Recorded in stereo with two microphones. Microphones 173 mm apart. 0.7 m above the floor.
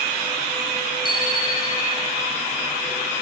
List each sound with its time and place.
1.1 s a bicycle bell: 25° left (ahead or behind), 10 m